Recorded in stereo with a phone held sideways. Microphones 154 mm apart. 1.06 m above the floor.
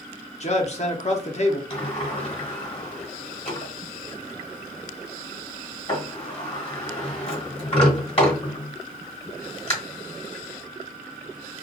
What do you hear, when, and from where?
0.4 s a man speaking: 50° left (ahead or behind), 0.7 m
1.7 s a sliding door: 40° left (ahead or behind), 1.4 m